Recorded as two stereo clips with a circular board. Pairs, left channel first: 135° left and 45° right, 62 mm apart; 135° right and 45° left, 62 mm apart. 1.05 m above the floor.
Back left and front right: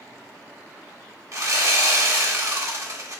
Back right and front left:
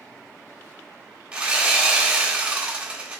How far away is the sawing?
About 0.6 m.